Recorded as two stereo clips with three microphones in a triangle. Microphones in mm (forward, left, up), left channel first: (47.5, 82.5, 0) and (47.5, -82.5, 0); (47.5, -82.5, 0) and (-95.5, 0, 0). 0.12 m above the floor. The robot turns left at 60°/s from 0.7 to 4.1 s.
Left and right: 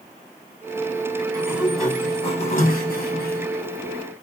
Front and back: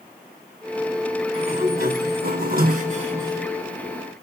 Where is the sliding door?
155° right, 3 m; by 3.5 s 75° left, 3 m.